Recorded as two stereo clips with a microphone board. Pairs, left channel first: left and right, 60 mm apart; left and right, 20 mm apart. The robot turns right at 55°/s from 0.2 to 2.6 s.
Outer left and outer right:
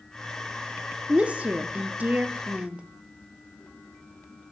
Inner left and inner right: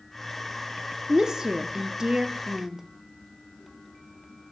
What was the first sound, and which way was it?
A woman speaking, 20° right (ahead or behind).